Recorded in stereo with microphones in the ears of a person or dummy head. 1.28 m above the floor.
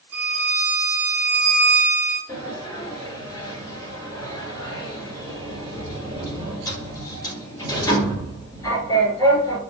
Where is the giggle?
No giggle in this recording.